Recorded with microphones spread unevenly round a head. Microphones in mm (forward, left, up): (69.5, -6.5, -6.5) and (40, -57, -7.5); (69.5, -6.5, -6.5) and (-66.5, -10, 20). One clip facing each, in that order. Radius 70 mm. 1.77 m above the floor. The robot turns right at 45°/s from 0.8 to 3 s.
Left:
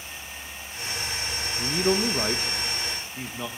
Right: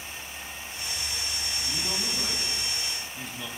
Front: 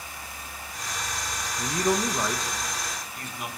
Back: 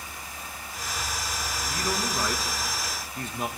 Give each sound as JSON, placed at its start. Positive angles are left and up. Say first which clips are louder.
{"t": 1.6, "sound": "a man speaking", "louder": "left 13 dB, front 7 dB", "azimuth_deg": 60, "distance_m": 1.6}